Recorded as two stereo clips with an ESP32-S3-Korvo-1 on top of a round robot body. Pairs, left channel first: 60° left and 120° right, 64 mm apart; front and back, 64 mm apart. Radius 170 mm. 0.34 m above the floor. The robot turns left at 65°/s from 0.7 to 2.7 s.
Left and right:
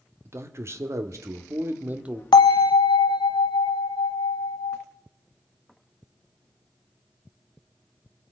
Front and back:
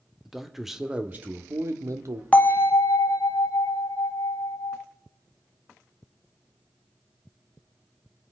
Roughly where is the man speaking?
Right.